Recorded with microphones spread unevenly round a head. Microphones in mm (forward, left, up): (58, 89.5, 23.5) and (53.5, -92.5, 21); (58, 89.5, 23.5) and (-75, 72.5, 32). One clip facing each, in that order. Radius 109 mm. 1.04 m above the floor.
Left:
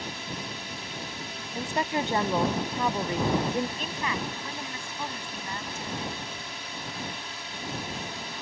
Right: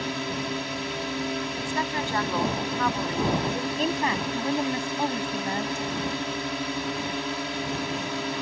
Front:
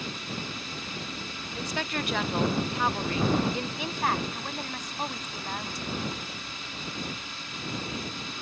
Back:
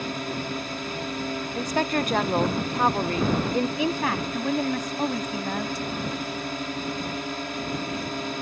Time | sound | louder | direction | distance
0.0 | a drone | right 8 dB, back 7 dB | 120° right | ?
1.6 | a woman speaking | even, back 7 dB | 155° left | ?
3.8 | a woman speaking | right 7 dB, back 5 dB | 155° right | ?